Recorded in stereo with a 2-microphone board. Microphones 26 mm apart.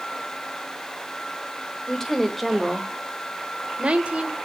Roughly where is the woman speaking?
Centre.